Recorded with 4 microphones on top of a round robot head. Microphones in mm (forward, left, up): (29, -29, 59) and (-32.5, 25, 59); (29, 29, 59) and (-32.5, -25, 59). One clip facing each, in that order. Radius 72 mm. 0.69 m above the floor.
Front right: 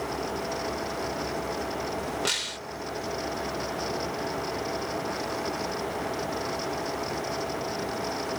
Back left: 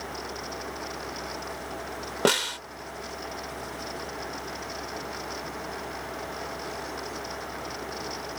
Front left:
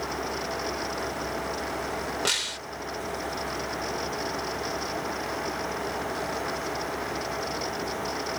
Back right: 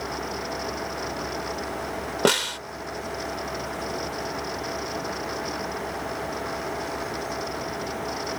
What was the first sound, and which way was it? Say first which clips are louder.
A snare drum: back left 8 dB, back right 9 dB; straight behind.